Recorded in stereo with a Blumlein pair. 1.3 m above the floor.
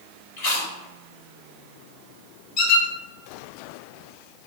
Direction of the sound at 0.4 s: 55° left.